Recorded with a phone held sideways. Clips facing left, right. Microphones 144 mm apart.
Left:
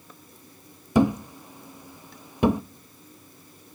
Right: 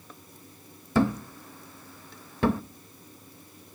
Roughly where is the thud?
Centre.